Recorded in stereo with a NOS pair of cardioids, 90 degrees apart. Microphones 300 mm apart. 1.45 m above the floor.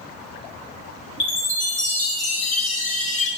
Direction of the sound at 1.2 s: 25° left.